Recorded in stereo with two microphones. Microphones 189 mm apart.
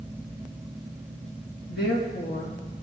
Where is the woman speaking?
70° left (ahead or behind), 4 m.